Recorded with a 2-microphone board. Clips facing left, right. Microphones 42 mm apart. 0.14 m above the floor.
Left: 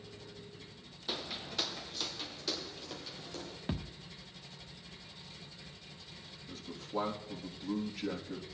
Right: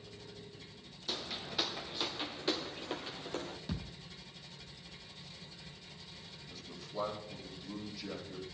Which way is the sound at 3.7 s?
40° left (ahead or behind).